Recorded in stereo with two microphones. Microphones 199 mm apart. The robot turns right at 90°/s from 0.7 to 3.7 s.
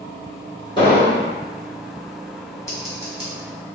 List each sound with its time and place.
0.8 s an explosion: 30° left, 1.6 m; by 1.3 s 80° left, 1.6 m
2.7 s scissors: 15° left (ahead or behind), 1.7 m; by 3.3 s 35° right (ahead or behind), 1.7 m